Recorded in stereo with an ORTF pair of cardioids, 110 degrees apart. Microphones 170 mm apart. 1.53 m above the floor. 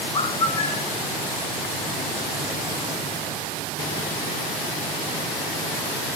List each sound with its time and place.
0.1 s a bird: 35° left, 3.5 m